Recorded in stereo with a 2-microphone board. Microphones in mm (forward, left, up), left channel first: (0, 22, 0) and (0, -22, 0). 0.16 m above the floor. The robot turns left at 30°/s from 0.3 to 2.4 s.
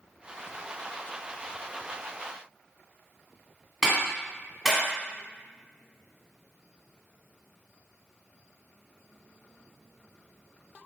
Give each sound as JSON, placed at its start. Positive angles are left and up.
{"t": 3.8, "sound": "a clap", "side_deg": -5, "distance_m": 1.3}